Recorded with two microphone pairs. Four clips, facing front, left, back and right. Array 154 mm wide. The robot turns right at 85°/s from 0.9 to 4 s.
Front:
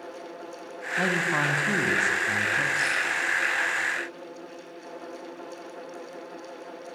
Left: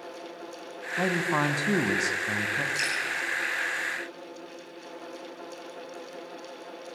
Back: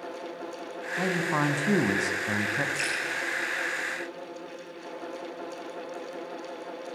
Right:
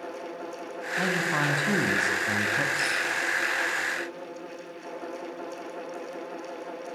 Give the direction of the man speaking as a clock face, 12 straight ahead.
10 o'clock.